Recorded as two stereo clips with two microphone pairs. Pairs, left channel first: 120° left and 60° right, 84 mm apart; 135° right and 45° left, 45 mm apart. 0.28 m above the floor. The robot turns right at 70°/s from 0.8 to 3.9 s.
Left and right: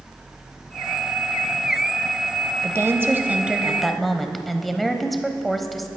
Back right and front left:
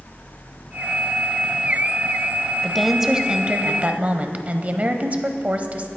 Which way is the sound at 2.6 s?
55° right.